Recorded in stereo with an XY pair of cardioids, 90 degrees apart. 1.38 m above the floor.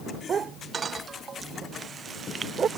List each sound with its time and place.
0.3 s a dog barking: 55° right